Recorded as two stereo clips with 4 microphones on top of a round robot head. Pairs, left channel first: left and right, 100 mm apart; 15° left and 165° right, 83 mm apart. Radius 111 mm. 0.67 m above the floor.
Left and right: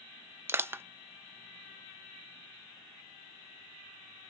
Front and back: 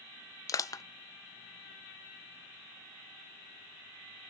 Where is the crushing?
25° right, 0.5 m.